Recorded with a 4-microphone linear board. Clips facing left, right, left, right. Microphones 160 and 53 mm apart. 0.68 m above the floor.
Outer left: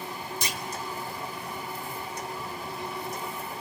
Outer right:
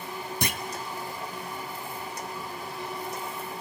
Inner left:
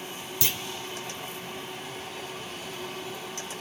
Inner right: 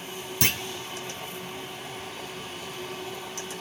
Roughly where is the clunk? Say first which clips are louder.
Outer right 7 dB, inner right 6 dB; right.